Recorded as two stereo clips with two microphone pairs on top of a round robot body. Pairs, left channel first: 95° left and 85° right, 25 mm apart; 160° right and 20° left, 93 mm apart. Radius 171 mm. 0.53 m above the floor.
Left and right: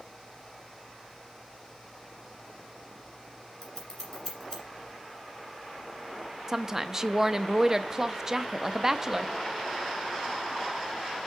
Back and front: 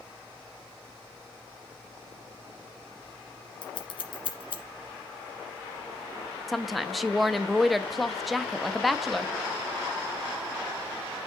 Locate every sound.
3.6 s scissors: 170° left, 1.8 m
6.5 s a woman speaking: 105° right, 0.7 m